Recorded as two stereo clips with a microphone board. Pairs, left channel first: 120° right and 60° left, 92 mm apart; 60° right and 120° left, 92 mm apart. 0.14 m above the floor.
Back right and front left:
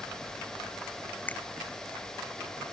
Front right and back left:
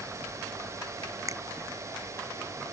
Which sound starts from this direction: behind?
A finger snap, at 1.3 s.